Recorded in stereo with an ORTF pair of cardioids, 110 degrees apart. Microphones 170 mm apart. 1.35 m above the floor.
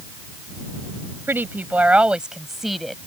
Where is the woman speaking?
10° right; by 3.0 s straight ahead.